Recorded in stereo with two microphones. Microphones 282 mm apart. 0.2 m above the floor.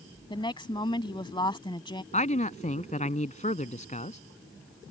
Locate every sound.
0.3 s a woman speaking: 15° left (ahead or behind)
2.1 s a man speaking: 25° left (ahead or behind)